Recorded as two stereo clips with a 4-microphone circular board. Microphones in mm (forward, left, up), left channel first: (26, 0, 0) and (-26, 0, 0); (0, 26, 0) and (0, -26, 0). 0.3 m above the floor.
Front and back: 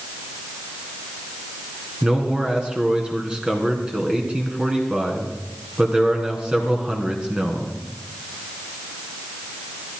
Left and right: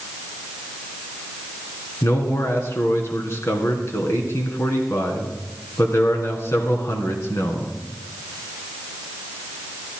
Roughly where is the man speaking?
Left.